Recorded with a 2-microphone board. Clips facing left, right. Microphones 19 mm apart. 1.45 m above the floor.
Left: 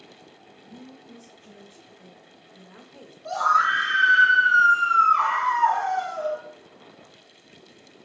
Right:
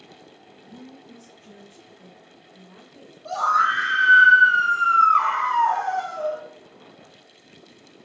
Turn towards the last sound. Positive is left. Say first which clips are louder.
# even
turn(degrees=20)  # may be behind; listen again after turning